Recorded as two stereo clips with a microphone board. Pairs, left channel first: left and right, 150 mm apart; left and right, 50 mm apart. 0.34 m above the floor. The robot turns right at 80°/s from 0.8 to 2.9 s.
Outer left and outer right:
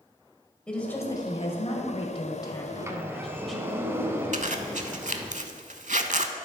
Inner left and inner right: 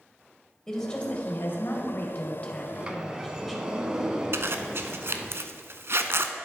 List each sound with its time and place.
0.7 s a woman speaking: 10° left, 1.4 m; by 3.7 s straight behind, 1.4 m
2.7 s a sliding door: 35° right (ahead or behind), 0.8 m; by 5.3 s 15° right (ahead or behind), 0.8 m
4.3 s a zipper: 60° right (ahead or behind), 0.6 m